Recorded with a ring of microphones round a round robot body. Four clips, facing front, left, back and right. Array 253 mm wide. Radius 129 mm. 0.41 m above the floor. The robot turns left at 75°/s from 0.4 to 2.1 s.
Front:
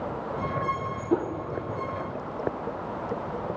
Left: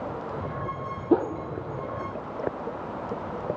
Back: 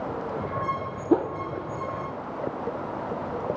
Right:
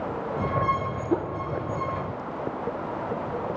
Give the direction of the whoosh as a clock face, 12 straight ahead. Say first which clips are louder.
Left 5 dB, back 4 dB; 7 o'clock.